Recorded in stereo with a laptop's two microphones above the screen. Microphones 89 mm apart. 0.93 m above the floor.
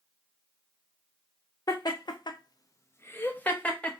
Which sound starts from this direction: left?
Laughter, at 1.7 s.